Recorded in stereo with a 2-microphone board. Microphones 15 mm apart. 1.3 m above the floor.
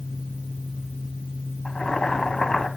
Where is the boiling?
65° left (ahead or behind), 1.9 m.